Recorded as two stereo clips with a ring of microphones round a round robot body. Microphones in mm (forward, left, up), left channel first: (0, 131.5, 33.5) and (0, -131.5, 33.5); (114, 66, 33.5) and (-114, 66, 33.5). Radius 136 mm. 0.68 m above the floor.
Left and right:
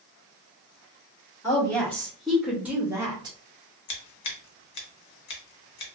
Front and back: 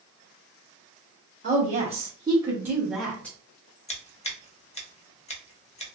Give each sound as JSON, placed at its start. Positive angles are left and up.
{"t": 1.4, "sound": "a woman speaking", "azimuth_deg": 160, "distance_m": 1.3}
{"t": 3.9, "sound": "scissors", "azimuth_deg": 60, "distance_m": 0.9}